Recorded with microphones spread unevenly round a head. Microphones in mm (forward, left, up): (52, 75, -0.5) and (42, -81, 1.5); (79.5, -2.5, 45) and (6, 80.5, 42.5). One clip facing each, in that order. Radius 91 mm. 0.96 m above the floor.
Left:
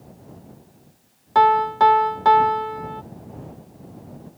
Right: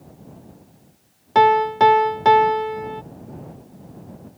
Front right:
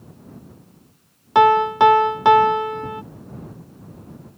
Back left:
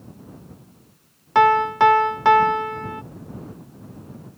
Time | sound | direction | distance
1.4 | a piano | 85° right | ?